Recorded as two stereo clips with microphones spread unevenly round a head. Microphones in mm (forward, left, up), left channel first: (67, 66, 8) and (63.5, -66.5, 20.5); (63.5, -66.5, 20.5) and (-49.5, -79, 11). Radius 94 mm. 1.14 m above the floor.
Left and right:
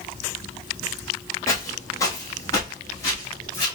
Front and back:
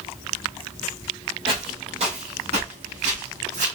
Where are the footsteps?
155° left, 1.4 m; by 3.7 s 165° left, 2.5 m.